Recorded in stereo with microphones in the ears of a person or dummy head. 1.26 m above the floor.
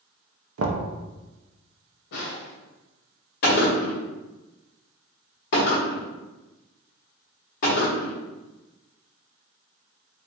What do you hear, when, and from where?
0.6 s knocking: 75° right (ahead or behind), 0.5 m
2.1 s a snare drum: 75° left (ahead or behind), 0.9 m
3.4 s a gunshot: 50° left (ahead or behind), 1.1 m